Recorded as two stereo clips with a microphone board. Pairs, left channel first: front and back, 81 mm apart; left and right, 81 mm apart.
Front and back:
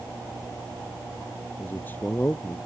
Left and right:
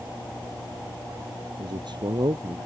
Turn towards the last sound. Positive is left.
turn(degrees=-65)